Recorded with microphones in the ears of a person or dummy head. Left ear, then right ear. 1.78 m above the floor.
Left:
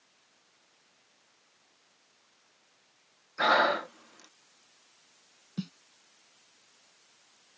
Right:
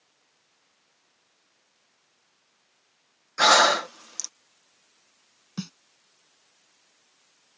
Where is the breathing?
80° right.